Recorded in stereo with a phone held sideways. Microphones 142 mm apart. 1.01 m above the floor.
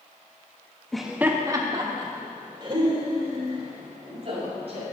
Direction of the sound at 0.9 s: 5° left (ahead or behind).